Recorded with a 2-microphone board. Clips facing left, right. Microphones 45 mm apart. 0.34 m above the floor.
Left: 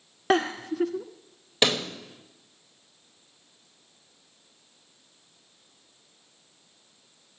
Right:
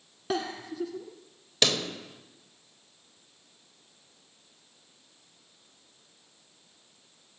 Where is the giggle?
60° left (ahead or behind), 0.9 m.